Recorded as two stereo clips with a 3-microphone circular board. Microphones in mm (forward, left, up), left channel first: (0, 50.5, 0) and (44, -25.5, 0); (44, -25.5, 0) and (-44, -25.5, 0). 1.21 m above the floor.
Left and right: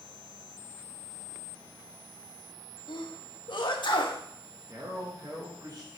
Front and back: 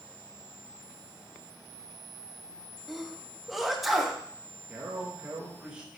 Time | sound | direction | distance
2.9 | a sneeze | 90° left | 1.5 m
4.7 | a man speaking | 105° right | 1.9 m